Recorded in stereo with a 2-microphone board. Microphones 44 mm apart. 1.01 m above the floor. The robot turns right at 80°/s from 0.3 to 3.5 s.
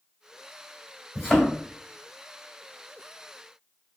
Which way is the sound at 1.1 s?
10° right (ahead or behind).